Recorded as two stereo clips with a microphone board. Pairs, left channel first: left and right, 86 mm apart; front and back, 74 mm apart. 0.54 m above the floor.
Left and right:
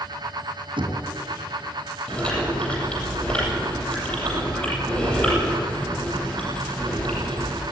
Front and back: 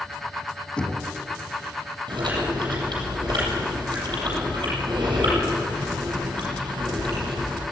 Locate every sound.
0.8 s knocking: 80° right, 3 m
2.1 s chewing: 165° left, 8.5 m